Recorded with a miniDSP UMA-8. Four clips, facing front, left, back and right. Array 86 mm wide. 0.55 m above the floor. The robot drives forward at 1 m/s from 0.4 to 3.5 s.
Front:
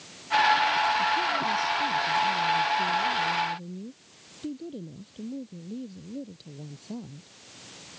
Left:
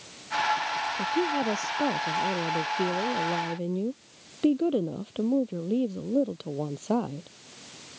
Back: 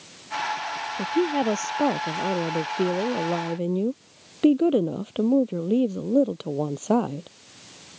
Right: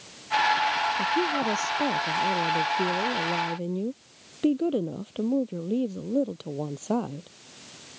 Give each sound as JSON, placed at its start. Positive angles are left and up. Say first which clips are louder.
{"t": 1.0, "sound": "a woman speaking", "louder": "right 1 dB, back 3 dB", "azimuth_deg": 175}